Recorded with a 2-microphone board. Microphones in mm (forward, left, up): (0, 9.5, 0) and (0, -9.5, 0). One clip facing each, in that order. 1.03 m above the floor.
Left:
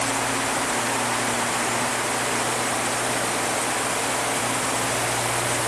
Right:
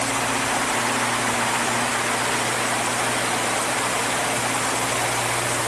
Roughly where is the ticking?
I don't hear ticking.